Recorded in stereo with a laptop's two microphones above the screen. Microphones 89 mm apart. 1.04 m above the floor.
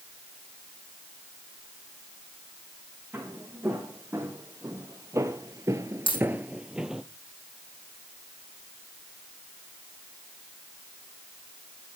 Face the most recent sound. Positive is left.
turn(degrees=80)